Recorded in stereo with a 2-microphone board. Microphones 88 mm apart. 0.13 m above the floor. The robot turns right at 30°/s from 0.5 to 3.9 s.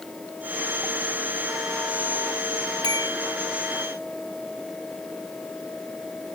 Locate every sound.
2.8 s a bell: 85° right; by 3.2 s 75° right (ahead or behind)